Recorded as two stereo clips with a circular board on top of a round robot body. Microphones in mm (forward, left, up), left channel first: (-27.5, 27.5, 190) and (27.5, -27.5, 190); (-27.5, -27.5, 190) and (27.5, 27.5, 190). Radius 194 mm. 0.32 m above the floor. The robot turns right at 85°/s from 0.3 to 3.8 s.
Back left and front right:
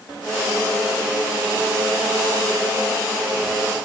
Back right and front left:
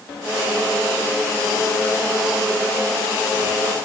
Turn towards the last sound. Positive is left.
No sound to turn to.